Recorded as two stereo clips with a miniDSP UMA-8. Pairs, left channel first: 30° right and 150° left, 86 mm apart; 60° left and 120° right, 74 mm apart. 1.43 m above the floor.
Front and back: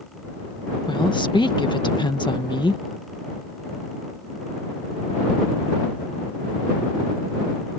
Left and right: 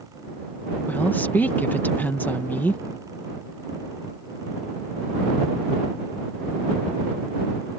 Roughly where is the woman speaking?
Ahead.